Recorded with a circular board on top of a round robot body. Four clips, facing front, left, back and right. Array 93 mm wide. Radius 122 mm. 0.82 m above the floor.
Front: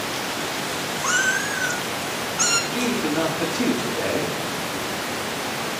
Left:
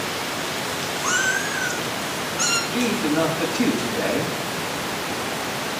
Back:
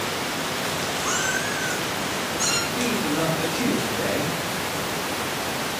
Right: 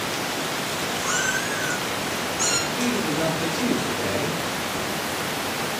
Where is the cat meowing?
30° left, 2.0 m; by 2.6 s 35° left, 1.1 m.